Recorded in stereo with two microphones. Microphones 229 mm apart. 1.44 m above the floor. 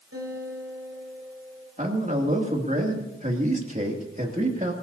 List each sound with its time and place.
0.1 s a guitar: 85° right, 8 m
1.8 s a man speaking: 35° right (ahead or behind), 2.5 m